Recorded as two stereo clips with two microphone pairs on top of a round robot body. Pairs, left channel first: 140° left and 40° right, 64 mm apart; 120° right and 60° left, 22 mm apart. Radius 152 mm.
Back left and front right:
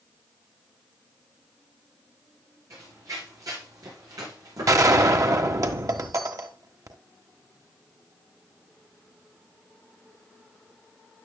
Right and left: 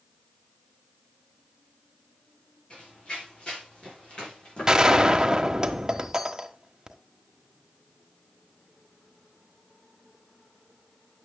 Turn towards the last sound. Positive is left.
turn(degrees=0)